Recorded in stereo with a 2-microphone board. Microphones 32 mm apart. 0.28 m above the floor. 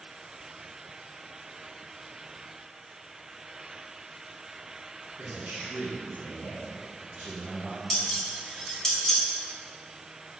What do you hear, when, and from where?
5.2 s a man speaking: 60° right (ahead or behind), 2.5 m; by 7.8 s 30° right (ahead or behind), 4.5 m
7.9 s dishes clattering: 20° left (ahead or behind), 1.5 m